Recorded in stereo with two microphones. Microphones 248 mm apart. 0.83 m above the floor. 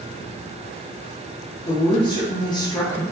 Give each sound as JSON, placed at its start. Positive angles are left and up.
{"t": 1.6, "sound": "a woman speaking", "side_deg": 15, "distance_m": 0.7}